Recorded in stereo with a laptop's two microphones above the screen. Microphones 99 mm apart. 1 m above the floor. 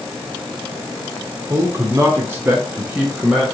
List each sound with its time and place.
1.5 s a man speaking: 30° right (ahead or behind), 1.0 m; by 3.4 s 5° right (ahead or behind), 0.9 m